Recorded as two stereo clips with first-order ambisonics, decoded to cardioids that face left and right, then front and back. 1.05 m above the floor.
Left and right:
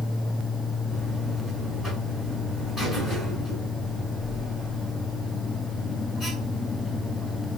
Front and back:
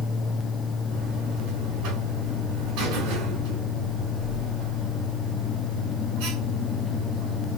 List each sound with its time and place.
0.9 s a buzzer: 165° left, 3 m